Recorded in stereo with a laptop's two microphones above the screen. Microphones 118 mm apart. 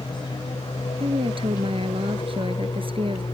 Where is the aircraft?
35° left (ahead or behind).